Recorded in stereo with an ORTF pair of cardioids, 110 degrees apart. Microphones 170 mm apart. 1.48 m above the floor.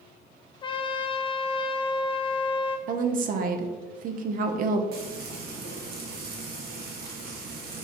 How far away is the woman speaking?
About 0.7 m.